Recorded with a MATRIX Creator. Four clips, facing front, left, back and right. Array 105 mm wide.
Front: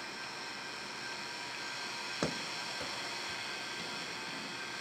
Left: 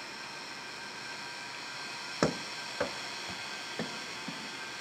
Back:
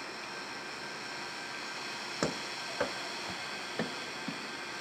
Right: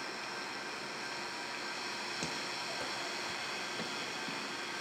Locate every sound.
2.2 s running footsteps: 100° left, 0.7 m; by 4.4 s 165° left, 2 m